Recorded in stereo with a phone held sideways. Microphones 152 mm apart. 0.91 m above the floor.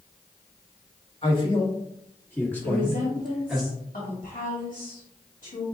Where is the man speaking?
40° left (ahead or behind), 1.7 m; by 3.6 s 5° right (ahead or behind), 2.5 m.